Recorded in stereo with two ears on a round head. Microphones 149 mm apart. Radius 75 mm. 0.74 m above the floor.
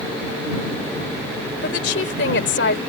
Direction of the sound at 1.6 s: 75° left (ahead or behind).